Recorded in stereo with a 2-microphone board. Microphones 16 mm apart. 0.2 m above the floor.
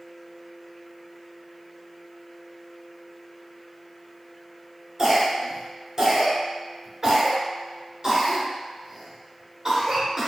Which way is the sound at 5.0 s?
40° right (ahead or behind).